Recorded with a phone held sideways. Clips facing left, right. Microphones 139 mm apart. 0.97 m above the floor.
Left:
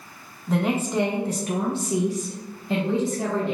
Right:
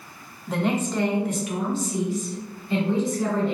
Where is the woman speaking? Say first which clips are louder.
Left 1 dB; centre (ahead or behind), 0.8 m; by 3.5 s 60° left (ahead or behind), 1.2 m.